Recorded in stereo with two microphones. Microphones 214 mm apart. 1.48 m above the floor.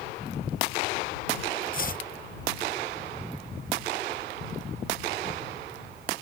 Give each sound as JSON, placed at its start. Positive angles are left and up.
{"t": 1.7, "sound": "chopping", "side_deg": 40}